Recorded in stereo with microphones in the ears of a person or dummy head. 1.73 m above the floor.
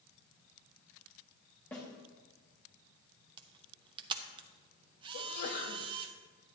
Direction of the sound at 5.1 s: 50° left (ahead or behind).